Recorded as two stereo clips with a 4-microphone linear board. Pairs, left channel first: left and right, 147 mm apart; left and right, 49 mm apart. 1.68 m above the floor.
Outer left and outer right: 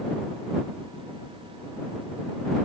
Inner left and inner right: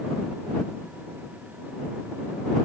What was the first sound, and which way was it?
Only background noise.